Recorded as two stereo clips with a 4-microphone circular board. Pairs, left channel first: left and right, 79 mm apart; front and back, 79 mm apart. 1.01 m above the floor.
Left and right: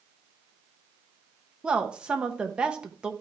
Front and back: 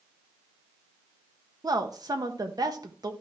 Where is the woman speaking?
165° right, 1.2 m.